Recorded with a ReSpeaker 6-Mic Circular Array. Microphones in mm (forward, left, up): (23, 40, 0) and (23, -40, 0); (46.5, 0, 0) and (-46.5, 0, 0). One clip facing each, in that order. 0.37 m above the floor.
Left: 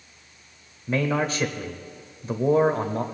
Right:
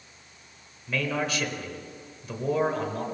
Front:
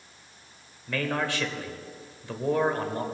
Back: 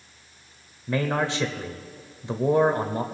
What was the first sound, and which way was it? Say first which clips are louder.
A man speaking: left 4 dB, back 4 dB; 125° left.